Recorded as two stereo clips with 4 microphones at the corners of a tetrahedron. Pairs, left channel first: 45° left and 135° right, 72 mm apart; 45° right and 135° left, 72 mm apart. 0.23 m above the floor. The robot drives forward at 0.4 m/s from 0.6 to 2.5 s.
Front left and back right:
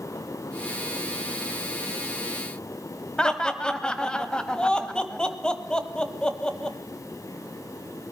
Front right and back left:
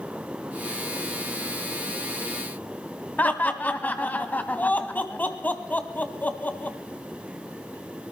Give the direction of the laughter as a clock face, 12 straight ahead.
1 o'clock.